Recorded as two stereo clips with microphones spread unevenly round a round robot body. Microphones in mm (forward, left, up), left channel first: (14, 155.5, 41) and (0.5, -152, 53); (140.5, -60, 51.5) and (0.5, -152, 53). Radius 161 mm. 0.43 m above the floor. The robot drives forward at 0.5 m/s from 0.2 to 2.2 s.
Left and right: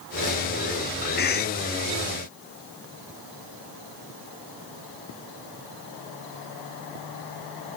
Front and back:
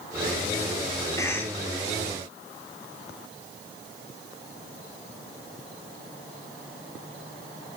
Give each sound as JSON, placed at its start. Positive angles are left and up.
{"t": 1.2, "sound": "a cough", "azimuth_deg": 85, "distance_m": 0.8}